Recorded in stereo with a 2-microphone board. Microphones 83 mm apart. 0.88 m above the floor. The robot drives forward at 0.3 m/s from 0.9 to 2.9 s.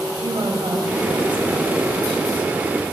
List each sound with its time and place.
0.2 s a woman speaking: 75° right (ahead or behind), 4 m; by 2.5 s 80° right, 4 m